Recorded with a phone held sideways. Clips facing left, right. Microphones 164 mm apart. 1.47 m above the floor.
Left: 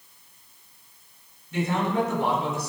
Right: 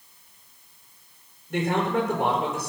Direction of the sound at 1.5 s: 60° right (ahead or behind).